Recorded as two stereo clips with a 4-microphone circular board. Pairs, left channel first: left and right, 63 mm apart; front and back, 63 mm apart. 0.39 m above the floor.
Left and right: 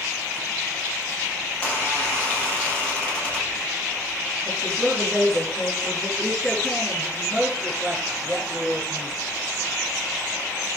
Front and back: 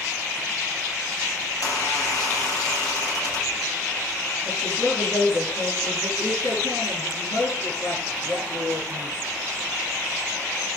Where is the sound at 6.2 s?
10° right, 7 m.